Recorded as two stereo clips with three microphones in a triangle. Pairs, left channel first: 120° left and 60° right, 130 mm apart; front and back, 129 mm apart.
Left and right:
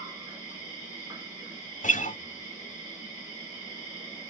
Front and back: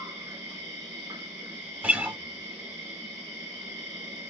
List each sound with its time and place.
0.0 s an insect: 115° right, 1.8 m
1.8 s a guitar: 105° left, 0.5 m